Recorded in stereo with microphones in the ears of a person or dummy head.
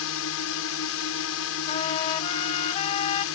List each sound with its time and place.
0.0 s a drone: 75° left (ahead or behind)
1.7 s a trumpet: 35° left (ahead or behind)